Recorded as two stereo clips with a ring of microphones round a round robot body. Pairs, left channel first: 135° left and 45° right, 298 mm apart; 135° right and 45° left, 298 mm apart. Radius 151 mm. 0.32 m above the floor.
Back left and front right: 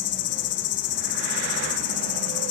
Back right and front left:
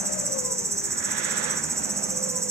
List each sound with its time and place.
0.0 s an insect: 125° left, 1.8 m